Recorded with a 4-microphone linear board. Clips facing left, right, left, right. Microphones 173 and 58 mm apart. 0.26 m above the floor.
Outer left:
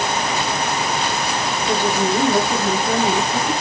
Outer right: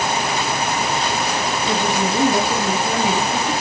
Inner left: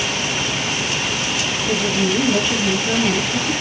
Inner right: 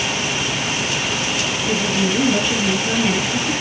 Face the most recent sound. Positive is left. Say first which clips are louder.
# outer left 3 dB, inner left 1 dB
turn(degrees=-10)  # may be behind; listen again after turning